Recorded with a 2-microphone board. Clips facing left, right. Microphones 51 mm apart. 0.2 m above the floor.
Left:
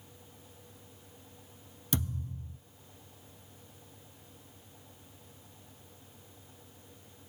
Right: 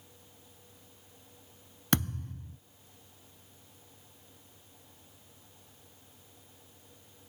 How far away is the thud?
About 1.0 m.